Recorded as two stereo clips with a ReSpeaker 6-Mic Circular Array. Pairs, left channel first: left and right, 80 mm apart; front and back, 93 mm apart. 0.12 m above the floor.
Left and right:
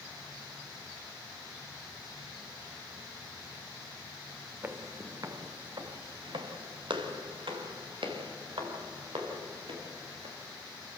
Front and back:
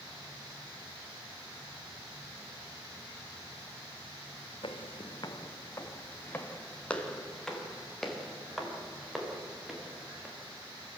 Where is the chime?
No chime in this recording.